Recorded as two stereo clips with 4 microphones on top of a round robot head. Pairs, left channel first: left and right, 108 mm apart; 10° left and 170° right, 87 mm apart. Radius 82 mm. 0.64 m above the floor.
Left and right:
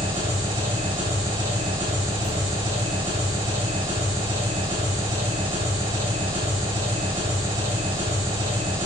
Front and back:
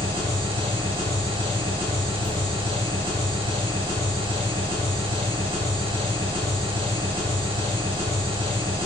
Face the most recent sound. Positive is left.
turn(degrees=-135)